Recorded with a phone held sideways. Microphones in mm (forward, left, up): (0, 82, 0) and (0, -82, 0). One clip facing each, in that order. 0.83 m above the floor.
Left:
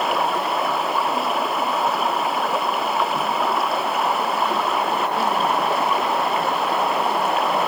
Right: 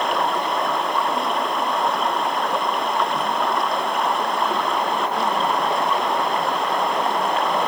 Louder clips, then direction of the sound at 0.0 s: Even; 5° left (ahead or behind).